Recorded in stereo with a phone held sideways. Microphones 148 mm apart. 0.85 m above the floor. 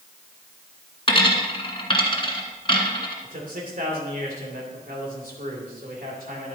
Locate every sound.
1.1 s a dropped coin: 35° left (ahead or behind), 1.4 m
3.2 s a man speaking: 75° right (ahead or behind), 2.5 m